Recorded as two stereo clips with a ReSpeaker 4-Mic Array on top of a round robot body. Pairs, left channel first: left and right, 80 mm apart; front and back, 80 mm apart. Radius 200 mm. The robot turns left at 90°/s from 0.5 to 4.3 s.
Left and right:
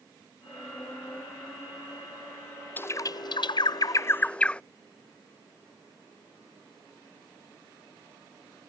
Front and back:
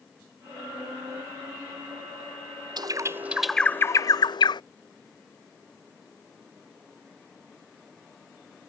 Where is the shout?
No shout in this recording.